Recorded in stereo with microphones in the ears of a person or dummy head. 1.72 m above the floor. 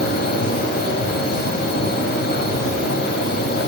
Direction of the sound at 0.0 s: 55° left (ahead or behind).